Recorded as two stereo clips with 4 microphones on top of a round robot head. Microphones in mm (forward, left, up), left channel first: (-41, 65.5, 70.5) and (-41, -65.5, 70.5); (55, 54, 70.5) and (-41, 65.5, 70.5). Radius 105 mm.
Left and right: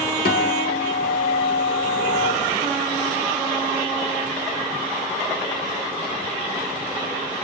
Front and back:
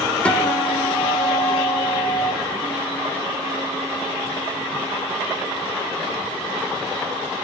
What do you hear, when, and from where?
0.2 s a guitar: 70° left, 1.9 m